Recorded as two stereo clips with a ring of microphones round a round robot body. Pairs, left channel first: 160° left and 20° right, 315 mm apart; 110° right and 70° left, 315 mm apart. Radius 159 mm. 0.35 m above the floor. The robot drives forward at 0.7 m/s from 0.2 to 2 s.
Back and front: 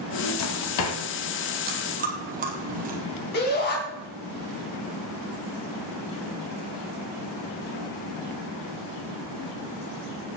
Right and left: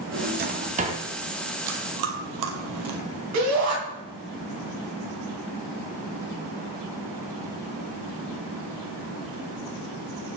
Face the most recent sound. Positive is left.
turn(degrees=100)